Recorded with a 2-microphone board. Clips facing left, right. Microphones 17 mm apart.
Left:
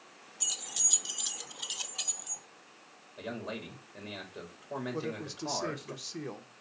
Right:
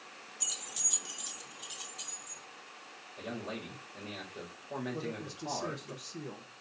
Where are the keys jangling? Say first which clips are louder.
Left 3 dB; 15° left (ahead or behind), 0.8 m; by 2.4 s 45° left (ahead or behind), 1.1 m.